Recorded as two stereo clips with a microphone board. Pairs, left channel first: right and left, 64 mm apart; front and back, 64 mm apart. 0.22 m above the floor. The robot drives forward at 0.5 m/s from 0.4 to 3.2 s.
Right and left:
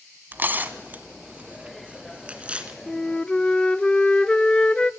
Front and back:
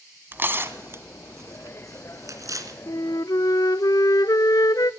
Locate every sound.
0.3 s tearing paper: 135° left, 1.3 m; by 2.8 s 160° left, 2 m
2.9 s a flute: 10° right, 0.6 m; by 4.9 s 15° right, 0.5 m